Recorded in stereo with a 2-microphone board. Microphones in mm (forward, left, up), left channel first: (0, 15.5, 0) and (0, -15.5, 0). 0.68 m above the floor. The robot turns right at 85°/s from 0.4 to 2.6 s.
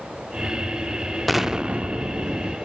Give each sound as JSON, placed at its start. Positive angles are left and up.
{"t": 1.3, "sound": "an explosion", "azimuth_deg": 175, "distance_m": 0.5}